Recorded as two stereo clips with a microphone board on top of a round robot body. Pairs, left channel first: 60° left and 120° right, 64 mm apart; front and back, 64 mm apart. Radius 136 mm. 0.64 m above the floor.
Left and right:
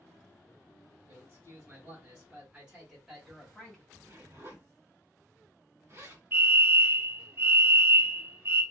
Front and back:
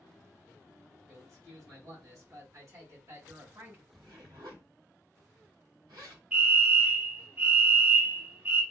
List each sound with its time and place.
1.1 s a man speaking: 165° right, 1.8 m; by 3.8 s 135° left, 1.5 m
3.9 s a zipper: 165° right, 1.9 m
6.3 s a fire alarm: 125° right, 1.9 m